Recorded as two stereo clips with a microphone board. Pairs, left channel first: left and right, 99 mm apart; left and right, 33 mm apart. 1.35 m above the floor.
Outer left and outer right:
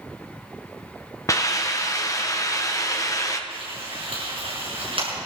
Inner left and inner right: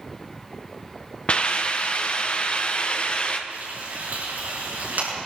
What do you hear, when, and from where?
1.3 s a hiss: 35° left (ahead or behind), 1.1 m
3.5 s frying: 65° right (ahead or behind), 7 m